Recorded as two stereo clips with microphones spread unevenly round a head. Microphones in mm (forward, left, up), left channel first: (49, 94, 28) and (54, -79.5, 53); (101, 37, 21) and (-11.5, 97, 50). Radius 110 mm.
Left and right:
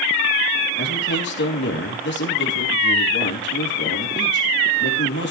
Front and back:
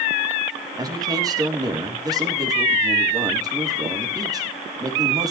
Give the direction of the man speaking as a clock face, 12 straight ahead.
9 o'clock.